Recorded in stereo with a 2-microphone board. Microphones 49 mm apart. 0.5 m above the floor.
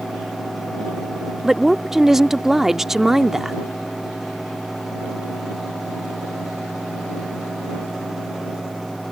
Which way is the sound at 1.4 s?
5° right (ahead or behind).